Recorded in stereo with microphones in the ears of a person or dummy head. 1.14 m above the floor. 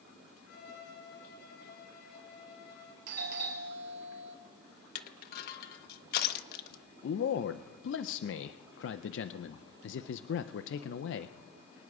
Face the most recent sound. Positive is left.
turn(degrees=60)  # may be behind; listen again after turning